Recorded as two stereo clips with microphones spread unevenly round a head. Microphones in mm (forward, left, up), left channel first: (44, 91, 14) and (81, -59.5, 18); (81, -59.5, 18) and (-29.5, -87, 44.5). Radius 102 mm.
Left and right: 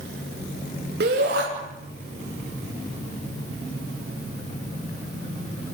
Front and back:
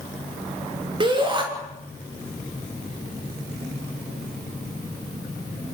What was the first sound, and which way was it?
A shout, 120° right.